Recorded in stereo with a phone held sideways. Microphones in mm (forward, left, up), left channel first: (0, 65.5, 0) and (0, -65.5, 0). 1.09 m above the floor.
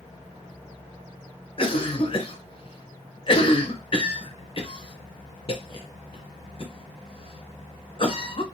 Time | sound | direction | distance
1.6 | a cough | 45° left (ahead or behind) | 0.7 m